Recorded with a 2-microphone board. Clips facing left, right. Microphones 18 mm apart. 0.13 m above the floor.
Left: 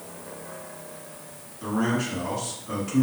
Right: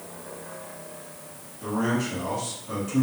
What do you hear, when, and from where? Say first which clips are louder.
1.6 s a man speaking: left 1 dB; 20° left (ahead or behind), 1.6 m